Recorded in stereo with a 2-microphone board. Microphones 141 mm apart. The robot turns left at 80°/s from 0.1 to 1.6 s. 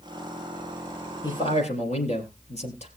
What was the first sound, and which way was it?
A man speaking, 25° left (ahead or behind).